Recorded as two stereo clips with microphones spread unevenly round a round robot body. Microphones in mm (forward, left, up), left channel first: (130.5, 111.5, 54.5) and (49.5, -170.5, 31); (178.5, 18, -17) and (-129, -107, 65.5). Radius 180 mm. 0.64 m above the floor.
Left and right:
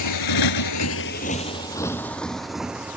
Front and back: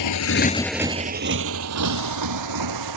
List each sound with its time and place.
0.0 s a motorcycle: 60° left; by 3.0 s 165° left